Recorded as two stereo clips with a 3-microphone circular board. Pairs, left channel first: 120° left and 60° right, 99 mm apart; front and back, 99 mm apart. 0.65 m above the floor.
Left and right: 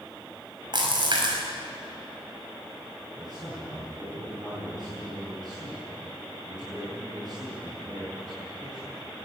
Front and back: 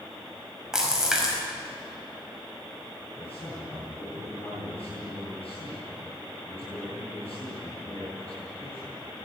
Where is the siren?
No siren in this recording.